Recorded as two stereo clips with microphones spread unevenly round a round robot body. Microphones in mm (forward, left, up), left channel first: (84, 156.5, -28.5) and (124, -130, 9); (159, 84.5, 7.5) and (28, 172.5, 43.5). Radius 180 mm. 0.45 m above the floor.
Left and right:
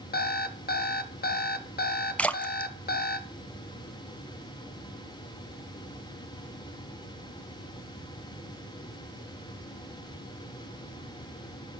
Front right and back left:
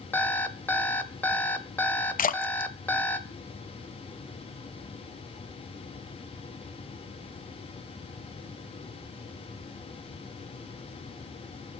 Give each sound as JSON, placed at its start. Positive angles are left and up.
{"t": 0.1, "sound": "an alarm clock", "azimuth_deg": 40, "distance_m": 1.1}
{"t": 2.2, "sound": "a splash", "azimuth_deg": 10, "distance_m": 0.7}